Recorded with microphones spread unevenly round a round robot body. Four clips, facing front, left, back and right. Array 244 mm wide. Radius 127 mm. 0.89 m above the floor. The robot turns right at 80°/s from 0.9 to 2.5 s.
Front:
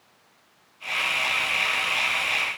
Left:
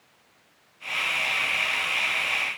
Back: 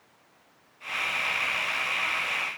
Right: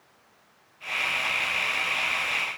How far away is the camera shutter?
I don't hear a camera shutter.